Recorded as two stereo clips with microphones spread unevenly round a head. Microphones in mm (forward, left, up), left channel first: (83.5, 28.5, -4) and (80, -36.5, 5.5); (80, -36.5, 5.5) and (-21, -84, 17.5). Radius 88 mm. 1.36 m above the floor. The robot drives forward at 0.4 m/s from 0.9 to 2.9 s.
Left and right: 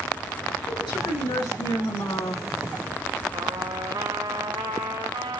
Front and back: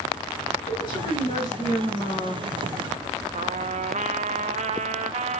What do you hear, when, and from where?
0.7 s a woman speaking: 90° left, 8 m; by 2.4 s 95° left, 8 m
3.3 s a trumpet: 140° right, 0.9 m